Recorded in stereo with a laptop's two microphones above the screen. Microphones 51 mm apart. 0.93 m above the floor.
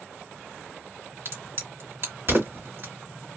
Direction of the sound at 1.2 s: 55° right (ahead or behind).